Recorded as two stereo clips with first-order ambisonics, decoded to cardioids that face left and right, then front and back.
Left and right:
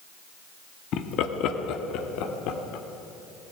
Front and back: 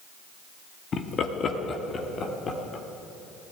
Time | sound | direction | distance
0.9 | laughter | 55° left | 1.2 m